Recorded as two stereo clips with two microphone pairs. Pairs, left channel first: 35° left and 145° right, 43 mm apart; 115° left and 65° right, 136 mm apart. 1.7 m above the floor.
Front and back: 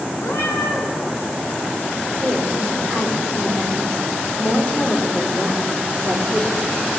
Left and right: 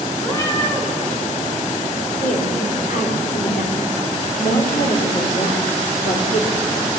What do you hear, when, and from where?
0.2 s a cat meowing: 45° left, 6 m
2.2 s a woman speaking: 95° left, 5 m